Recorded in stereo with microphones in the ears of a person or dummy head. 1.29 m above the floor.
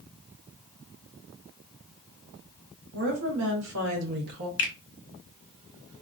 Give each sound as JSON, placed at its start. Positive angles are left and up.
{"t": 2.9, "sound": "a woman speaking", "side_deg": -85, "distance_m": 1.3}
{"t": 4.6, "sound": "a finger snap", "side_deg": 60, "distance_m": 0.6}